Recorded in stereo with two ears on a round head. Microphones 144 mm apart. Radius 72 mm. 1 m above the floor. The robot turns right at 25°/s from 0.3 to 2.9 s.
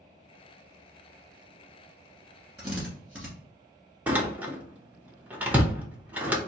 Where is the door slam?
10° right (ahead or behind), 0.7 m.